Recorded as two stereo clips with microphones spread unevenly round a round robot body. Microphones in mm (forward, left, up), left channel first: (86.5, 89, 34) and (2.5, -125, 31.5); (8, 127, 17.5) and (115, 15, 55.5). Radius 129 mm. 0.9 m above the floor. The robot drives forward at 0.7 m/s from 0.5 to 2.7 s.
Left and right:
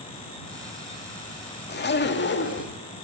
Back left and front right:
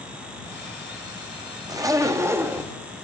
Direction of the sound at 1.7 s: 25° left.